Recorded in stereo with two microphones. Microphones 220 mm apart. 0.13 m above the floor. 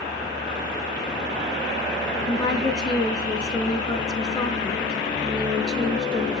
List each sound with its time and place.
2.3 s a woman speaking: 20° left (ahead or behind), 1.2 m